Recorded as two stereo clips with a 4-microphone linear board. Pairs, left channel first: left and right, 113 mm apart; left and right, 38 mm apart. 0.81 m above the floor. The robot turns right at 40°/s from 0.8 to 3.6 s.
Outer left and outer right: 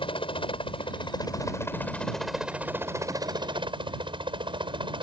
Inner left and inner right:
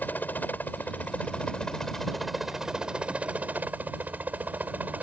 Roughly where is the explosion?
I don't hear an explosion.